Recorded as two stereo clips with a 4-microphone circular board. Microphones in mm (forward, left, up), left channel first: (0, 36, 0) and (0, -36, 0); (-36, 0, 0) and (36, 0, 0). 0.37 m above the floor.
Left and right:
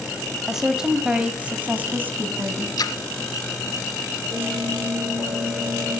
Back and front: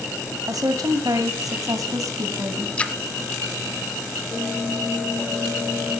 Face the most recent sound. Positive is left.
turn(degrees=-110)